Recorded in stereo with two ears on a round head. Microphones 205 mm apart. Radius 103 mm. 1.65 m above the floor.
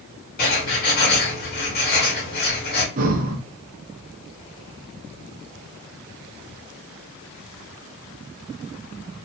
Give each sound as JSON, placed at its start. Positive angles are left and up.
{"t": 0.4, "sound": "writing", "side_deg": 45, "distance_m": 1.7}
{"t": 3.0, "sound": "breathing", "side_deg": -40, "distance_m": 0.7}